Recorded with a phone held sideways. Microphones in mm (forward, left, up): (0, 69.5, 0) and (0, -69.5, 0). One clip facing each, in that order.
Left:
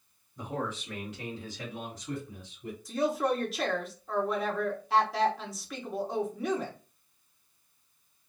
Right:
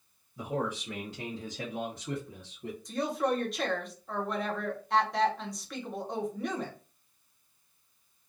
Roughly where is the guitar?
I don't hear a guitar.